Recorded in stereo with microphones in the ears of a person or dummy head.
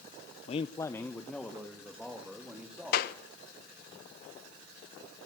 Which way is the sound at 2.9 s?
55° left (ahead or behind).